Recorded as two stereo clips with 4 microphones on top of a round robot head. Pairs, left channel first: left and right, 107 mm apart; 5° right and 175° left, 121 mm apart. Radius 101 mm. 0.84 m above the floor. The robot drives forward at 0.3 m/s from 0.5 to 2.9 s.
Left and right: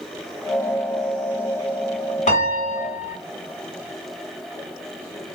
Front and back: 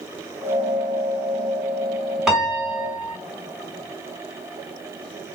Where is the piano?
85° left, 1.2 m; by 3.2 s 95° left, 1.2 m.